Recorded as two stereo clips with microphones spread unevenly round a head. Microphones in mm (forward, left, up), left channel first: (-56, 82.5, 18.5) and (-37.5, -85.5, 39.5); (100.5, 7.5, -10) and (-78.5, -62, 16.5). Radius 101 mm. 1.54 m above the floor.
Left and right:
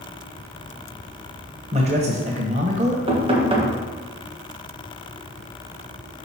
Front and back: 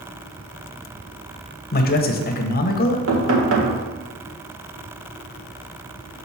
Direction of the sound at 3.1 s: 140° right.